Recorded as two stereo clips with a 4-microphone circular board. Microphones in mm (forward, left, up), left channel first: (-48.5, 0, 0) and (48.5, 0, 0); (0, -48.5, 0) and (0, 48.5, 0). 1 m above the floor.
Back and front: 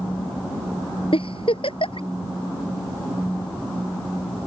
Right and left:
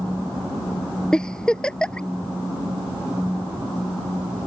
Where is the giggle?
170° right.